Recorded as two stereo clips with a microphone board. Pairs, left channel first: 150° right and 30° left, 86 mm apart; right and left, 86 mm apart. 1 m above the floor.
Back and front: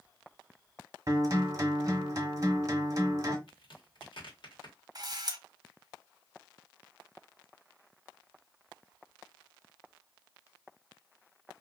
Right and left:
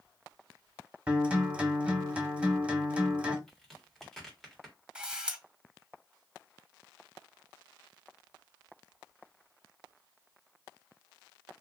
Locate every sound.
1.1 s a guitar: 25° left, 1.0 m
3.5 s a crack: 175° right, 1.5 m
5.0 s a camera shutter: 15° left, 0.8 m